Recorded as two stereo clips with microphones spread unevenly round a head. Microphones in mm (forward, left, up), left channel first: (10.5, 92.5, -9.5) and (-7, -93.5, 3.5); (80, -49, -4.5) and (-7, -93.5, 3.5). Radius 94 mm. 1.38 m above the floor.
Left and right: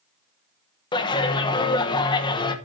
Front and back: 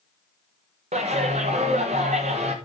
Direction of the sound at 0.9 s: 155° left.